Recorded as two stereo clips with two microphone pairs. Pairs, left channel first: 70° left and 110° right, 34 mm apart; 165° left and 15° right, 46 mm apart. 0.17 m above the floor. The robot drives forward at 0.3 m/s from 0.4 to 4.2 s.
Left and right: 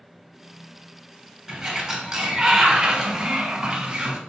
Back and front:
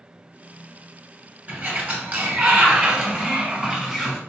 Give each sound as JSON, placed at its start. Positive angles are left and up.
{"t": 1.5, "sound": "a sliding door", "azimuth_deg": -40, "distance_m": 1.3}